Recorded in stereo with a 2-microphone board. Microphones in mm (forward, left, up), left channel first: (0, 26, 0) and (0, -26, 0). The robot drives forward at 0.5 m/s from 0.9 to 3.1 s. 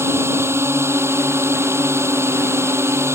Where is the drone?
55° right (ahead or behind).